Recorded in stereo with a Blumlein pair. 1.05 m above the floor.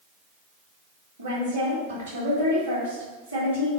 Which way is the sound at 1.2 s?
70° right.